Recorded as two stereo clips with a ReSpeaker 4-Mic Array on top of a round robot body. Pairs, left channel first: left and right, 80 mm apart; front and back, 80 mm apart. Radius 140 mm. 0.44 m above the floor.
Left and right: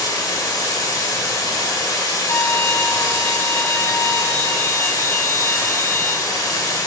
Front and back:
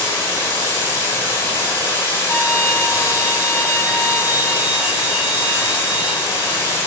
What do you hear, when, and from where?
0.0 s running water: 60° left, 1.3 m
2.3 s a violin: 50° left, 1.9 m